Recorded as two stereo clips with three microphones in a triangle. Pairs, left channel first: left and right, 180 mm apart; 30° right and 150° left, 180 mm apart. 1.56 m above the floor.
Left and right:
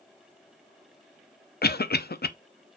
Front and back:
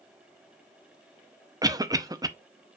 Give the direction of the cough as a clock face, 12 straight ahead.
9 o'clock.